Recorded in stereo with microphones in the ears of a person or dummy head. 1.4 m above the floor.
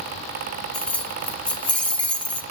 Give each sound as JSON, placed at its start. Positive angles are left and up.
{"t": 0.7, "sound": "keys jangling", "side_deg": 10, "distance_m": 0.6}